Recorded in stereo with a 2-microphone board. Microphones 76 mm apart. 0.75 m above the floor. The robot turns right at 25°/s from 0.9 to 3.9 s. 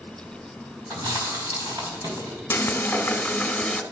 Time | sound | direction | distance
0.9 | chewing | 105° right | 3.5 m
2.5 | frying | 120° left | 1.1 m